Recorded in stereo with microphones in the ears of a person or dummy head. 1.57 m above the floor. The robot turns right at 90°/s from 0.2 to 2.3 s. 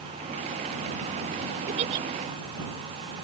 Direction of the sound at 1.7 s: 50° right.